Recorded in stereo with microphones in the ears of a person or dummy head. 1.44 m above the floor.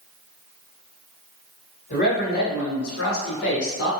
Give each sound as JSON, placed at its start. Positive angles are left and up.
{"t": 1.9, "sound": "a man speaking", "side_deg": 45, "distance_m": 1.4}